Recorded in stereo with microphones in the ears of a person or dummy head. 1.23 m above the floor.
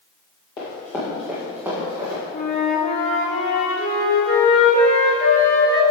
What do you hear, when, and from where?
0.6 s running footsteps: 25° left (ahead or behind), 1.6 m; by 2.2 s 15° right (ahead or behind), 3 m
2.3 s a flute: 40° left (ahead or behind), 1.7 m